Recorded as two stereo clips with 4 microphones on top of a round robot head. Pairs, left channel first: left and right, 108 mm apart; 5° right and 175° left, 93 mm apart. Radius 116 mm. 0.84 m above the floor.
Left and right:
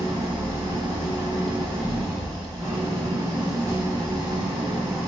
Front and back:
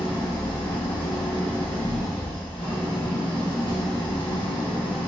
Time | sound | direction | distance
0.0 | an engine running | 35° right | 1.2 m